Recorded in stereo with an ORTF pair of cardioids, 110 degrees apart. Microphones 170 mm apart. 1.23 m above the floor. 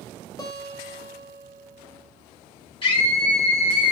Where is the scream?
30° left, 2 m.